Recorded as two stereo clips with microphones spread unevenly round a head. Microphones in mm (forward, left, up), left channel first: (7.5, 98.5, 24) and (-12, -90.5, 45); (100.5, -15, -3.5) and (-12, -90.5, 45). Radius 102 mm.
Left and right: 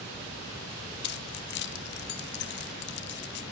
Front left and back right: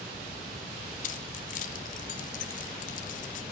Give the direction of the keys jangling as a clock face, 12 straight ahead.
9 o'clock.